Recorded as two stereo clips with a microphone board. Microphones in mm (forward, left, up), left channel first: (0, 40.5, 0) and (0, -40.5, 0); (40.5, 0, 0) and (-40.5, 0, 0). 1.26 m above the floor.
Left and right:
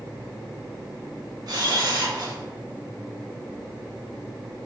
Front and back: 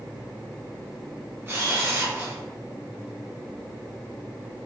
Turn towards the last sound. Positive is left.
turn(degrees=-125)